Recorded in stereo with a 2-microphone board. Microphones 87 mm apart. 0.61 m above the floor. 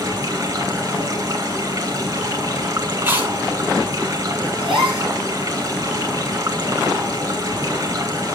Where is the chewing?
20° right (ahead or behind), 5.5 m.